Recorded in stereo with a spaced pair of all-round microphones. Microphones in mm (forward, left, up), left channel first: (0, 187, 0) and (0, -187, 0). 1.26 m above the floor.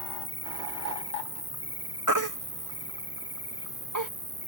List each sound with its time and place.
0.0 s an insect: 80° right
2.1 s a baby crying: 55° right (ahead or behind)